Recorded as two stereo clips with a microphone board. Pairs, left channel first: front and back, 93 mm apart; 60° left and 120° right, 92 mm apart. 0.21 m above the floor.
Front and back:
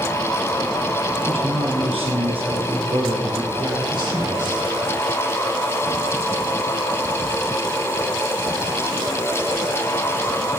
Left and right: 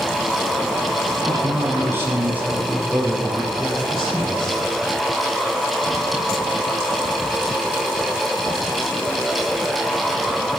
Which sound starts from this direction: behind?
A man speaking, at 1.2 s.